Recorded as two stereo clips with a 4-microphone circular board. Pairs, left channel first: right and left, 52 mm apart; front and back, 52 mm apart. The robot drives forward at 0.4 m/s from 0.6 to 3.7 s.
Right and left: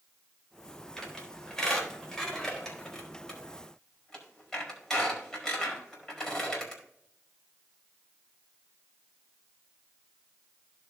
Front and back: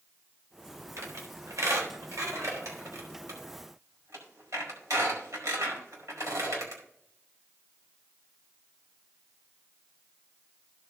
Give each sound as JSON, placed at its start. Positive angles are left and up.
{"t": 1.0, "sound": "a squeak", "azimuth_deg": -170, "distance_m": 3.5}